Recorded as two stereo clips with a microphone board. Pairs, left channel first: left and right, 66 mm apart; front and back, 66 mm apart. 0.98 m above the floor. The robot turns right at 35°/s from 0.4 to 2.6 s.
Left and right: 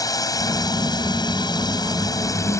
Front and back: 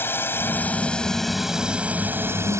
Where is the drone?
55° left; by 2.6 s 135° left.